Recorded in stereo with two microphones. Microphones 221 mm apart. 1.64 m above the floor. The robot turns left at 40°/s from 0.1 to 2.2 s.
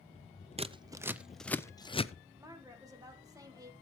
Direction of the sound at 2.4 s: 15° right (ahead or behind).